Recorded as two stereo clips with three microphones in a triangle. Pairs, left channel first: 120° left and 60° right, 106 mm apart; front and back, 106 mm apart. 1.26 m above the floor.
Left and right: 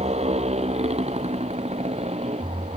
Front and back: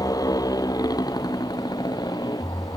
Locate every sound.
0.0 s a motorcycle: 55° right; by 2.8 s 50° right